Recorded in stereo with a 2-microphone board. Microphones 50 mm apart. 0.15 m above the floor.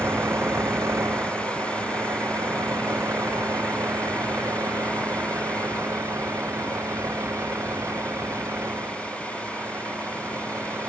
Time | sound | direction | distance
0.0 | a vehicle | 55° right (ahead or behind) | ?